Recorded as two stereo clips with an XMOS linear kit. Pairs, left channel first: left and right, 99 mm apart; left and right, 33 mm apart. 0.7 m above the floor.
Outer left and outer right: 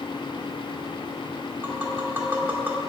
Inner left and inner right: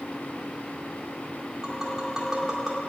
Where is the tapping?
20° right (ahead or behind), 2.0 m.